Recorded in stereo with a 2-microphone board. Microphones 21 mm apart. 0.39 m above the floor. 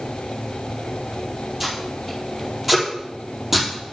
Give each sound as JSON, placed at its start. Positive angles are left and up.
{"t": 1.6, "sound": "tape being pulled", "side_deg": -15, "distance_m": 4.0}